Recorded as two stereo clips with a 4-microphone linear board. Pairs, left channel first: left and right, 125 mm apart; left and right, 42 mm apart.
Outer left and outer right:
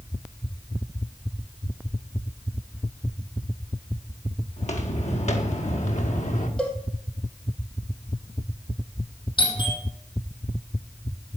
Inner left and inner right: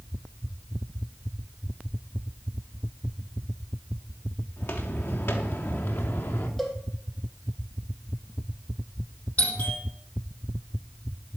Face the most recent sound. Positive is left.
turn(degrees=40)  # may be behind; listen again after turning